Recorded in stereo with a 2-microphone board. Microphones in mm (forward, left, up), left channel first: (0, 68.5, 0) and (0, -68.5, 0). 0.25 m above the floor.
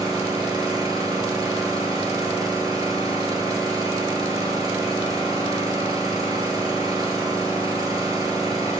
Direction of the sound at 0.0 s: 25° right (ahead or behind).